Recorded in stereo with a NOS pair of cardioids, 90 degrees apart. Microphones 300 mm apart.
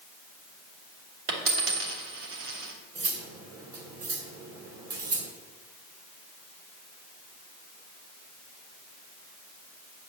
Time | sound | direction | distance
1.3 | a dropped coin | 50° right | 2.5 m
3.0 | cutlery clinking | 55° right | 2 m